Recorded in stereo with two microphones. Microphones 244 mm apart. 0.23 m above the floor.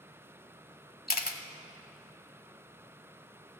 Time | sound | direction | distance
1.1 | a camera shutter | 40° left (ahead or behind) | 0.7 m